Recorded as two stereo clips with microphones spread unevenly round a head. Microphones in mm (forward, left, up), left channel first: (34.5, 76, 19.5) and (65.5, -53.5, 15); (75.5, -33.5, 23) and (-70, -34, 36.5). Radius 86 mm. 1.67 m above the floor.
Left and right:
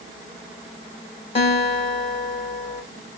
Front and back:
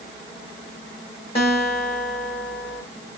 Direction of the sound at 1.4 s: 60° left.